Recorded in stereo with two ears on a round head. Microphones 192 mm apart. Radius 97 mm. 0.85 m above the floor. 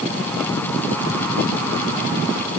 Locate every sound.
Only background noise.